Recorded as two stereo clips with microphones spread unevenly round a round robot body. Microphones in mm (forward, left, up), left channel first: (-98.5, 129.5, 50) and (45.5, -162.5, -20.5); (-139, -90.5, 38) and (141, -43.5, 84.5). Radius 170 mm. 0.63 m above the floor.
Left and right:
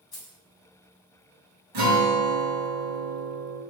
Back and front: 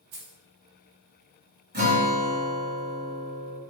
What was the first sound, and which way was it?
Keys jangling, 35° left.